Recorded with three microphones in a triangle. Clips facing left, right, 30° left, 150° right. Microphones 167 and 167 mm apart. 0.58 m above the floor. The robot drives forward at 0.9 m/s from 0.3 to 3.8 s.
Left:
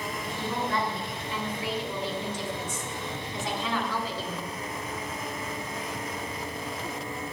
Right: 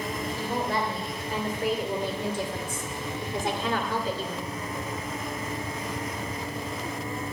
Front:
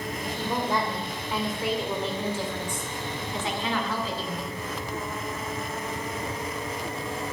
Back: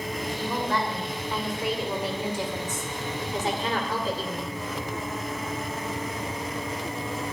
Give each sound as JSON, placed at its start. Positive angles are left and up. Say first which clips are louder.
{"t": 0.2, "sound": "a woman speaking", "louder": "right 1 dB, front 1 dB", "azimuth_deg": -40, "distance_m": 3.0}